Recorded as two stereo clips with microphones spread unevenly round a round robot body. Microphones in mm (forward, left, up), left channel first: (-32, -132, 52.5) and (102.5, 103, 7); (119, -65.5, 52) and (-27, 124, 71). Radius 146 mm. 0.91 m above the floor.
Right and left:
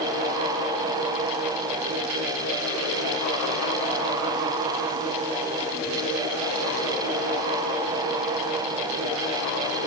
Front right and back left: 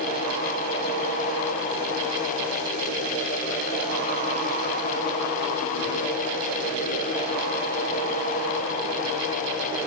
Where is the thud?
No thud in this recording.